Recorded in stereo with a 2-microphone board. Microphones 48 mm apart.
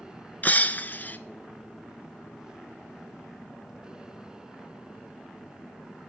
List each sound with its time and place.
0.4 s breaking glass: 40° left (ahead or behind), 0.7 m